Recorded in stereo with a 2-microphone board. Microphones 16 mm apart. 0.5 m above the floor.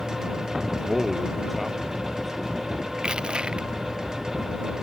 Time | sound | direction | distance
0.7 | a man speaking | 10° right (ahead or behind) | ?
3.0 | crushing | 80° right | ?